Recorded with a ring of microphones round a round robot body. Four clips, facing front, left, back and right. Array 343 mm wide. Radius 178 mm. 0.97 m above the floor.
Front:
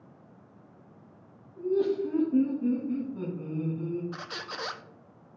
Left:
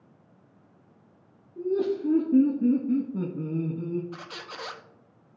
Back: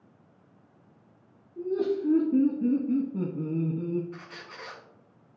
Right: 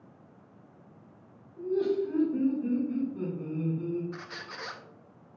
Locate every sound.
1.6 s laughter: 115° left, 2.5 m; by 4.0 s 150° left, 1.1 m
4.1 s a squeak: 25° left, 0.5 m